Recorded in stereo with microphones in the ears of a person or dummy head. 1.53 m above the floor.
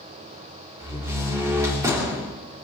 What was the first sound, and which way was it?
A door slam, 20° right (ahead or behind).